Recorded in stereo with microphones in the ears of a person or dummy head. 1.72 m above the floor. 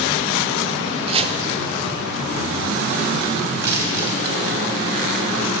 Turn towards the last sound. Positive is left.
turn(degrees=-55)  # may be behind; listen again after turning